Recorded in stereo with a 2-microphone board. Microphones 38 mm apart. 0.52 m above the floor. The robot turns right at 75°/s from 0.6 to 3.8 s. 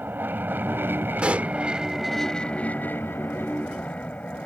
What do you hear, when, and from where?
0.0 s an aircraft: 115° right; by 4.5 s 125° left
1.2 s a pop: 25° right (ahead or behind); by 1.5 s 45° right (ahead or behind)